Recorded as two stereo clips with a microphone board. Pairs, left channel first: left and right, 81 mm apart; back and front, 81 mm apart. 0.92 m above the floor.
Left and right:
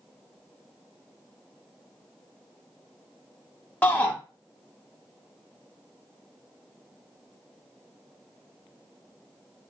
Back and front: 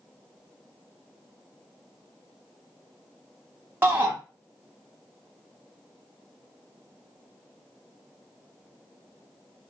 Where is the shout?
35° left, 0.6 m.